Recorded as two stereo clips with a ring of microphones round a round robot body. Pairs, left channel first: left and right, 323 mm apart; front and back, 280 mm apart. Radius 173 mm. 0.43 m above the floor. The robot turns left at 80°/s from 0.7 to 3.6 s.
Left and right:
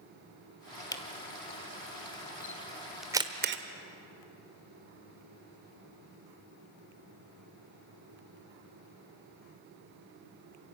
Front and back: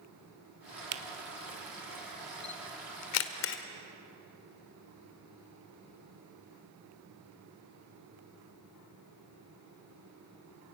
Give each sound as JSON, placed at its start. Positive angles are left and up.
{"t": 0.9, "sound": "a camera shutter", "azimuth_deg": 170, "distance_m": 1.2}